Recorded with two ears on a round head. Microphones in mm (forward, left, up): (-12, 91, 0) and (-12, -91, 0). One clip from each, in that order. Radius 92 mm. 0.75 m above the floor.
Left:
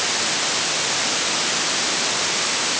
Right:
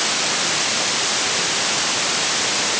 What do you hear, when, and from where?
Only background noise.